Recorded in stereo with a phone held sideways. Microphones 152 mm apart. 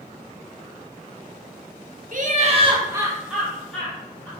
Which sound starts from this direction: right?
Laughter, at 2.1 s.